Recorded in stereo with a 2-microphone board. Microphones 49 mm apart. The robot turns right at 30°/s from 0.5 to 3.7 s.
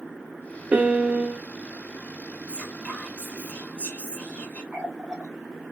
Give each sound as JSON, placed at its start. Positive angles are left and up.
{"t": 0.7, "sound": "a piano", "side_deg": -30, "distance_m": 0.5}
{"t": 2.5, "sound": "whispering", "side_deg": 20, "distance_m": 1.2}
{"t": 4.7, "sound": "a running tap", "side_deg": -15, "distance_m": 0.8}